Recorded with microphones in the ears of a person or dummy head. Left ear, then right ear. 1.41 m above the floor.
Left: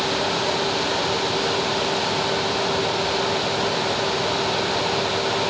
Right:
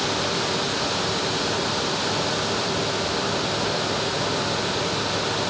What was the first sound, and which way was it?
Only background noise.